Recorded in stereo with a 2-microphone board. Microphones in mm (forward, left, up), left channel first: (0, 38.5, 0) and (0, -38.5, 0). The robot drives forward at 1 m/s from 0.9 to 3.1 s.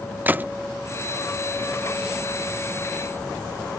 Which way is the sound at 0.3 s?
25° right (ahead or behind).